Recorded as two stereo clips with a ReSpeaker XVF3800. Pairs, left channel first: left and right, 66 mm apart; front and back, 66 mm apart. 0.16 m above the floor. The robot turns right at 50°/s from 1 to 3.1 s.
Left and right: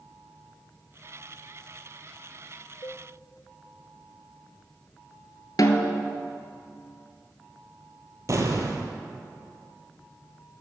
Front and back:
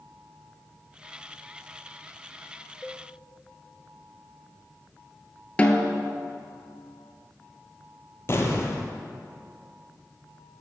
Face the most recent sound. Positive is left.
turn(degrees=-50)